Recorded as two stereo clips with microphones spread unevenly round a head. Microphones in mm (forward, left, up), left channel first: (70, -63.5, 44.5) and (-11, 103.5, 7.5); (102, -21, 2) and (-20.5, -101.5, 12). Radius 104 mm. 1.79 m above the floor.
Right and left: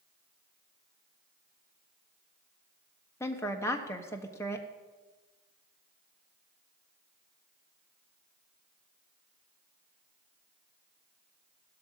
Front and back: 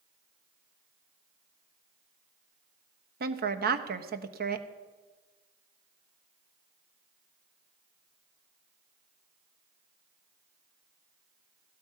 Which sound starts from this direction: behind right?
A woman speaking, at 3.2 s.